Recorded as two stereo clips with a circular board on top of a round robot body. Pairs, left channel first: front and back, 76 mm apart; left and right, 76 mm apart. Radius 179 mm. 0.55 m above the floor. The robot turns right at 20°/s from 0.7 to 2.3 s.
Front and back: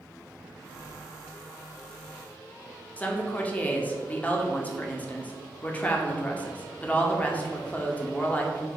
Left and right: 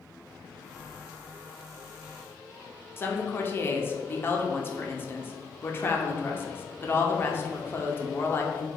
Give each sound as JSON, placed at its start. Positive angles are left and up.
{"t": 3.0, "sound": "a woman speaking", "azimuth_deg": 55, "distance_m": 1.0}